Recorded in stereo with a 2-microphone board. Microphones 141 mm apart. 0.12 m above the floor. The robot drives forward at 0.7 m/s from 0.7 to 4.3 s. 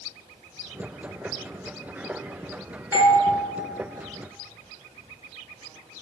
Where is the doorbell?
15° right (ahead or behind), 1.8 m.